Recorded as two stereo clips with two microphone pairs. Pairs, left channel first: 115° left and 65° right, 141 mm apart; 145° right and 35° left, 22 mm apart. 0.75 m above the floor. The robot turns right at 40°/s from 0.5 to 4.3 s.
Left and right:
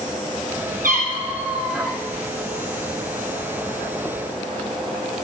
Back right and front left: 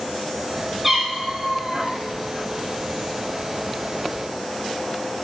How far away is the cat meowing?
About 3.5 m.